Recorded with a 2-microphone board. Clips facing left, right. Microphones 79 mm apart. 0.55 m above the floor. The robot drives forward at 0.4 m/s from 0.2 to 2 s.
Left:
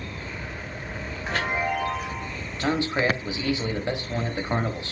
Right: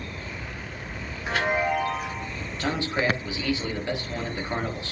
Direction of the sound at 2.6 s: 20° left (ahead or behind).